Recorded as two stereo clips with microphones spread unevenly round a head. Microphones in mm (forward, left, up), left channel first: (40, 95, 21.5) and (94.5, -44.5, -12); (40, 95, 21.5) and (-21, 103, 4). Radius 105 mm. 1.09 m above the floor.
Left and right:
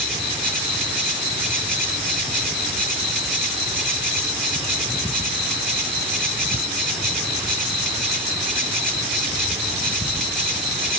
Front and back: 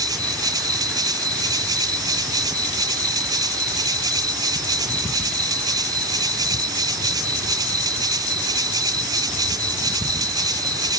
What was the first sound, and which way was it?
An insect, 160° right.